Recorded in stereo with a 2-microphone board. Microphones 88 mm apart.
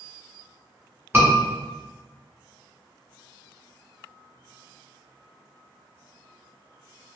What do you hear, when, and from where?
1.1 s a scream: 25° right (ahead or behind), 1.6 m